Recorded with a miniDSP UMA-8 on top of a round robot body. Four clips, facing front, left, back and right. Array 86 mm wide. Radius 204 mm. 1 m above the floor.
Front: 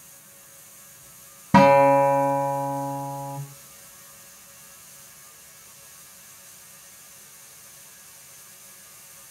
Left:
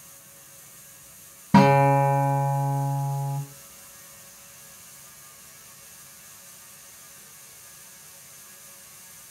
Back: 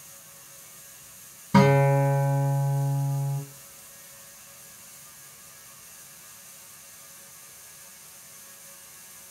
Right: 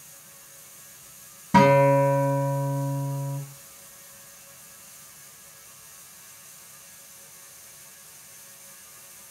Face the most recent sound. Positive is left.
turn(degrees=15)